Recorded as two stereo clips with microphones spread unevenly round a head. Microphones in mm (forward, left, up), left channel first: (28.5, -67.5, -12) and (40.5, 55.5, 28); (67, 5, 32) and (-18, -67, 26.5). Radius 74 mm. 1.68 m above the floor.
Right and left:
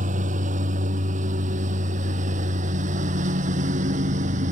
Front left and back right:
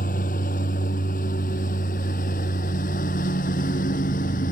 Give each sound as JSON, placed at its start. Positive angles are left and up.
{"t": 0.0, "sound": "a lawn mower", "azimuth_deg": 65}